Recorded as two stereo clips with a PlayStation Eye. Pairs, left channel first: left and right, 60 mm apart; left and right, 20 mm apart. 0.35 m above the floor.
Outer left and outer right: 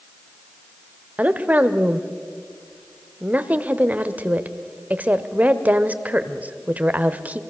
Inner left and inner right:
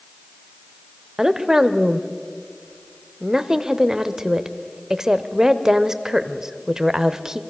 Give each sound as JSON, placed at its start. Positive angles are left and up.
{"t": 1.2, "sound": "a woman speaking", "side_deg": -25, "distance_m": 1.0}